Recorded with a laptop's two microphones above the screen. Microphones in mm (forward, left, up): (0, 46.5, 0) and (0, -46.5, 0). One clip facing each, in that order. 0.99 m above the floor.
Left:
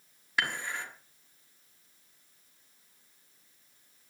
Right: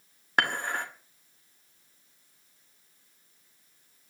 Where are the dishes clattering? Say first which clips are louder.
Right 5 dB; 50° right (ahead or behind), 1.5 m.